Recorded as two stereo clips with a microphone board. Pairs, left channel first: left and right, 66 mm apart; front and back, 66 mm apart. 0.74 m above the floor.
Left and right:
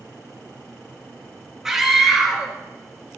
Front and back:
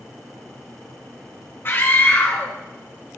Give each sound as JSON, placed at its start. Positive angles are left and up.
{"t": 1.6, "sound": "a scream", "azimuth_deg": -10, "distance_m": 1.1}